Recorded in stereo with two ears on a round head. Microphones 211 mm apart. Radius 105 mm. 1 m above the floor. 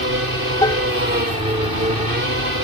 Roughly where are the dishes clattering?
Centre.